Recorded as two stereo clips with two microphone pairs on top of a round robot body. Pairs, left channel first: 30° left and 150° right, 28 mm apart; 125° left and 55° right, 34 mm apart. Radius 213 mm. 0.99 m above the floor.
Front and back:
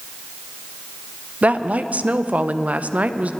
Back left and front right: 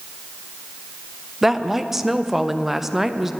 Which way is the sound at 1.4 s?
130° right.